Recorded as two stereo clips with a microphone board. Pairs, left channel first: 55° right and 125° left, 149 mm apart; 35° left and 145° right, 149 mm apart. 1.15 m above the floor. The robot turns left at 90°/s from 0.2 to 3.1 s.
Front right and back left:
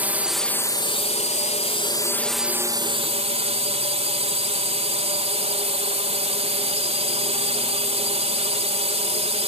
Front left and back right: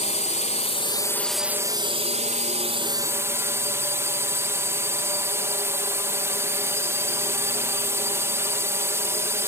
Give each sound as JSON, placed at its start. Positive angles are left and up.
{"t": 0.0, "sound": "a drone", "azimuth_deg": 50}